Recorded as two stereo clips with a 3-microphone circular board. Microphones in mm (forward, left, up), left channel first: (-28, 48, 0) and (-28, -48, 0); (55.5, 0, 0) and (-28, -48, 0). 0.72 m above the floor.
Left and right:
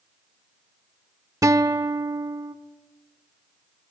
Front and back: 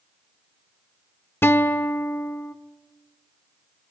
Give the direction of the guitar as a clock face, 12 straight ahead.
1 o'clock.